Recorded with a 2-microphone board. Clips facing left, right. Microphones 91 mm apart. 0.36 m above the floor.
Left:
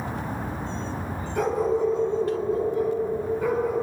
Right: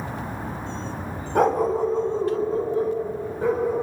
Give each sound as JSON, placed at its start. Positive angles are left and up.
{"t": 1.4, "sound": "a dog barking", "side_deg": -55, "distance_m": 0.9}